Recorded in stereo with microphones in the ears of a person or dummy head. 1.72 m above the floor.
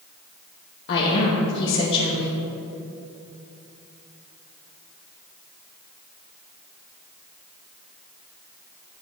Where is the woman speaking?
60° left (ahead or behind), 1.4 m.